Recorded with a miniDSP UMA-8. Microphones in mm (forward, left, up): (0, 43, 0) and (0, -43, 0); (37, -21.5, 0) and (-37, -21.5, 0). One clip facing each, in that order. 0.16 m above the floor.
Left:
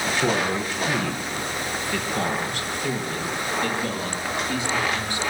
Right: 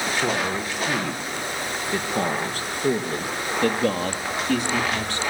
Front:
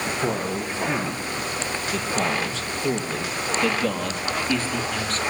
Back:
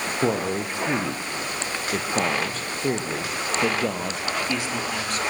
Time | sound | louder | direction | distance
0.2 | a man speaking | left 3 dB, back 5 dB | straight behind | 4.5 m